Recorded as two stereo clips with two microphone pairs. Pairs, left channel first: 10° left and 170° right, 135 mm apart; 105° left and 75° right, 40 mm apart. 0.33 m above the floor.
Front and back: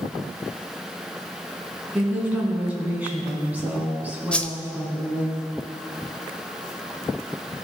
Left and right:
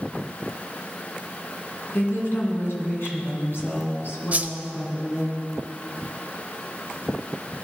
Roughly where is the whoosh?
Ahead right.